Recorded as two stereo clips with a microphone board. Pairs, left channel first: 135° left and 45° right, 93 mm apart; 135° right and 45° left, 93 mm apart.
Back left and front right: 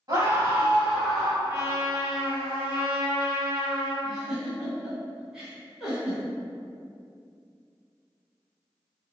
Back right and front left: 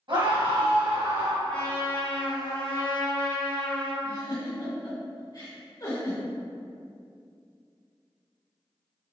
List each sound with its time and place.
0.1 s a scream: 10° left, 1.9 m; by 1.3 s 55° left, 1.5 m
1.4 s a trumpet: 65° right, 1.5 m
4.0 s a giggle: 125° right, 1.8 m